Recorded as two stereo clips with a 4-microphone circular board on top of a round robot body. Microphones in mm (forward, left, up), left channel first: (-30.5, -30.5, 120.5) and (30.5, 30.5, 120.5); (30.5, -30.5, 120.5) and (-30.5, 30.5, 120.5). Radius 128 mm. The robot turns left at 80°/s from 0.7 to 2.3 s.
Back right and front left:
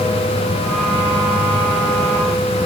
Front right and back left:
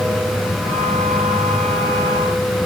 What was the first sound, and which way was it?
Only background noise.